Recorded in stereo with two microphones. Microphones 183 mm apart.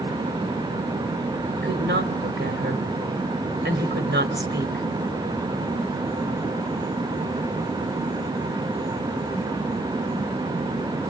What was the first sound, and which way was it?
A woman speaking, 75° right (ahead or behind).